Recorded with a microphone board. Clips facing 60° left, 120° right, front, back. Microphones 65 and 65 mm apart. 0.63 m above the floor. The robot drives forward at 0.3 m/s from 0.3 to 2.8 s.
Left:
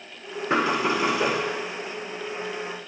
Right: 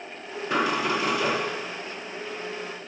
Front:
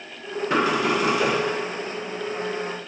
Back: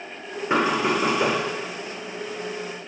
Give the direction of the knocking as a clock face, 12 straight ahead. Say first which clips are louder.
Left 2 dB, even; 8 o'clock.